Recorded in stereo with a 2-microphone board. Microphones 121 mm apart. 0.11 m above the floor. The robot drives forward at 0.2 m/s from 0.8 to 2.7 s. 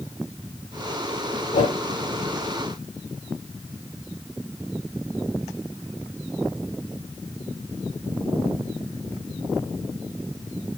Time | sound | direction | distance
1.5 | a whoosh | 85° left | 4.5 m